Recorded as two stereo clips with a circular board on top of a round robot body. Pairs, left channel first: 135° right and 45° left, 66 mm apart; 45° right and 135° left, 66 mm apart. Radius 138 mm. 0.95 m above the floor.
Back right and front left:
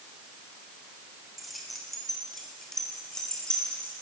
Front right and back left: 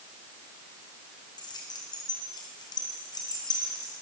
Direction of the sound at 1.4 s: 45° right.